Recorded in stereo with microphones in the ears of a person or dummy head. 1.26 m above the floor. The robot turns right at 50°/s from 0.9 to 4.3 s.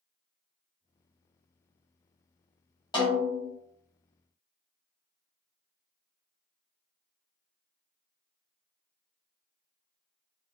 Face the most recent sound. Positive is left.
turn(degrees=-130)